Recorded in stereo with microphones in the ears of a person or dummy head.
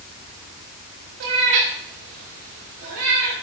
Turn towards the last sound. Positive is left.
turn(degrees=-60)  # may be behind; listen again after turning